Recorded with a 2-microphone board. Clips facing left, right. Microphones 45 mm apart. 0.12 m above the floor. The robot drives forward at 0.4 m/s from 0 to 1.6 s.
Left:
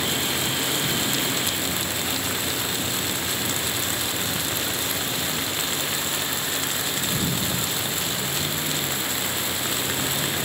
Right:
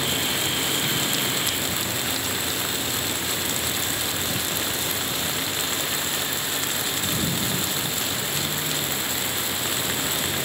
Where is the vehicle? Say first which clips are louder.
Even; 5° left (ahead or behind).